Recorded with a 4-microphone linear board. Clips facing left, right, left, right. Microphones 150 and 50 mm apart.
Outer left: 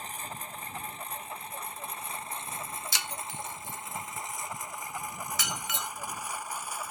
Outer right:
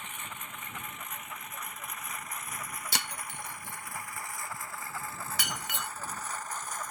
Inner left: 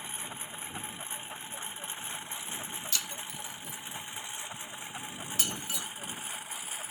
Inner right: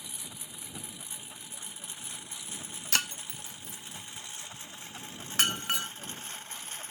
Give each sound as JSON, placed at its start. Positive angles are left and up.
{"t": 0.0, "sound": "a lawn mower", "side_deg": 35}
{"t": 2.9, "sound": "breaking glass", "side_deg": -65}